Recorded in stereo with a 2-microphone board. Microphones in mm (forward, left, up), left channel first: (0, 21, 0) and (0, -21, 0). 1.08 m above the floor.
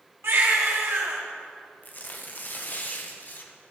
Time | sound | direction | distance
0.2 | a baby crying | 65° right (ahead or behind) | 1.1 m
1.8 | tearing paper | 40° left (ahead or behind) | 0.6 m